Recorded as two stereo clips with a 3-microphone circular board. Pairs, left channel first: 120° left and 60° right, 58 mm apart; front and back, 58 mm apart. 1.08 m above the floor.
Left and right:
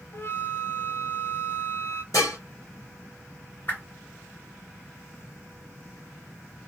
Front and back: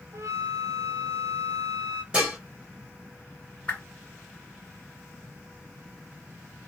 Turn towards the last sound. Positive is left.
turn(degrees=65)